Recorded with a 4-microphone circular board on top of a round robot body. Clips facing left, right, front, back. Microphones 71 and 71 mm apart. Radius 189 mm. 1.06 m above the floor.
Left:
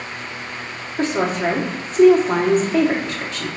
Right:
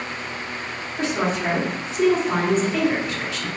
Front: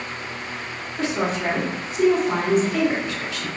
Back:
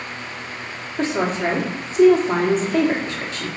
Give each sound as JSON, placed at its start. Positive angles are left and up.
{"t": 1.0, "sound": "a woman speaking", "azimuth_deg": 130, "distance_m": 1.4}